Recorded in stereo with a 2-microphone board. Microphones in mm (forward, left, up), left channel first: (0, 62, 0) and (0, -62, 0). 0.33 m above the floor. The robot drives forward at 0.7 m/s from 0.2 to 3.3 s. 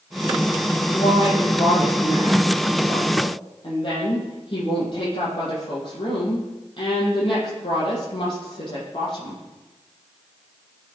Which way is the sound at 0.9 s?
50° left (ahead or behind).